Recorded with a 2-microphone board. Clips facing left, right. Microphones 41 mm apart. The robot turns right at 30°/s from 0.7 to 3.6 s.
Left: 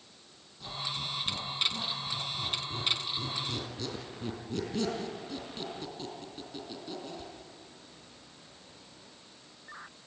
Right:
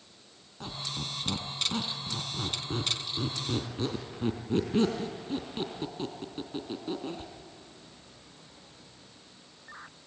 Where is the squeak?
60° right (ahead or behind), 3 m; by 7.3 s 30° right (ahead or behind), 3 m.